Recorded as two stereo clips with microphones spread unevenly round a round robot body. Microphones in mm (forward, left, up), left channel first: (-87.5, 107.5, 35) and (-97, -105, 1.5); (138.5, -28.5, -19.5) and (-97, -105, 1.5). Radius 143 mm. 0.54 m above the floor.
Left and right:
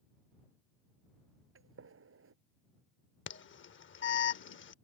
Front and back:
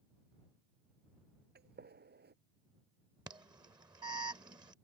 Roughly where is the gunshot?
Behind right.